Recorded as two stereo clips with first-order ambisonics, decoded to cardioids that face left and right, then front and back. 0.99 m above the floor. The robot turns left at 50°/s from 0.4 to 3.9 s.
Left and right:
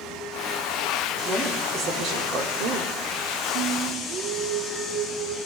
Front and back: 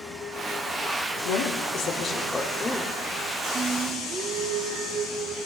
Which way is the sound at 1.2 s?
15° right.